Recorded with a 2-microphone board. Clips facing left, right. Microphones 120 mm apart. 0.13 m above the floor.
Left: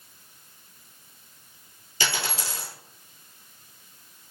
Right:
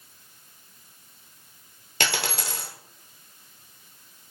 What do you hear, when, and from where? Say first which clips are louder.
2.0 s a dropped coin: right 2 dB; 70° right (ahead or behind), 0.9 m